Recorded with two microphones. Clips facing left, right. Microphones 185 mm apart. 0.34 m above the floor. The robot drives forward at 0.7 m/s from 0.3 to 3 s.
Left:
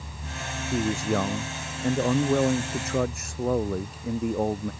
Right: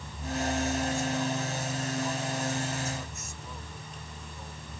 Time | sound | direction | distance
0.7 | a man speaking | 85° left | ?